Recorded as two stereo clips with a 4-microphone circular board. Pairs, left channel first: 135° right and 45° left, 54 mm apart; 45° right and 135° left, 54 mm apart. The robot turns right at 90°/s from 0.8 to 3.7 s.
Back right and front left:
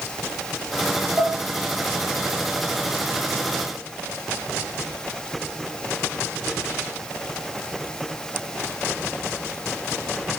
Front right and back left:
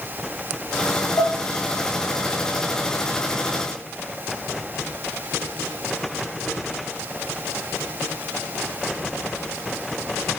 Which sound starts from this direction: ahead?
Dishes clattering, at 1.2 s.